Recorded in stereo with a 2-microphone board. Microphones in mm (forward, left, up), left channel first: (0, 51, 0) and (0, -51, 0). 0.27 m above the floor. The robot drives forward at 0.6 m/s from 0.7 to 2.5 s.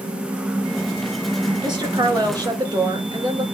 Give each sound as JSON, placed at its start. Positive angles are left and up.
{"t": 1.6, "sound": "a woman speaking", "side_deg": -45, "distance_m": 3.5}